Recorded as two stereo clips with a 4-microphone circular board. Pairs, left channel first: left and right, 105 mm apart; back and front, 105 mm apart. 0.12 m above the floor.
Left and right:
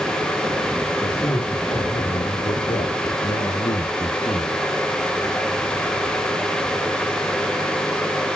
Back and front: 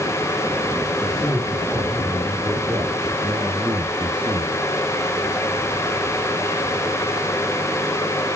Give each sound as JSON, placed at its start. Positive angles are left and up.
{"t": 1.0, "sound": "a man speaking", "azimuth_deg": 100, "distance_m": 6.5}